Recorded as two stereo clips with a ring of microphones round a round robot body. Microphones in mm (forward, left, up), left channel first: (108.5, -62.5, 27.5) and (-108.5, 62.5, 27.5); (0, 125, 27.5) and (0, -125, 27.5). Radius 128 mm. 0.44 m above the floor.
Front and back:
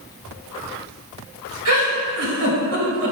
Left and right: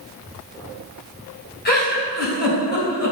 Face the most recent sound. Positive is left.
turn(degrees=140)